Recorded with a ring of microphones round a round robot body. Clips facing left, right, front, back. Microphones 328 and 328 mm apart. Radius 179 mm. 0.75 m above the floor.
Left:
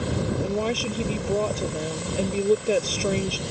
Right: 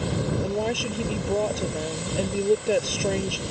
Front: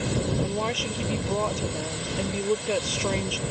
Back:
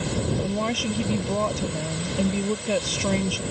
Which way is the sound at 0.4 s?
175° left.